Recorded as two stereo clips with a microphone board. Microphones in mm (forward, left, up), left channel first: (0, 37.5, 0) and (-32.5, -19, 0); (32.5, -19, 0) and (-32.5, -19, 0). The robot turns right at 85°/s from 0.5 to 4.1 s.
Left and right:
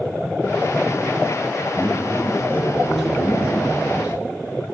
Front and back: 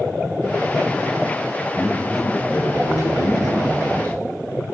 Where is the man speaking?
130° right, 4.5 m; by 4.2 s 70° left, 4.5 m.